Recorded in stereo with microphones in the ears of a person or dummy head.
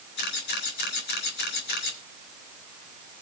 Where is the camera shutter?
60° left (ahead or behind), 3.5 m.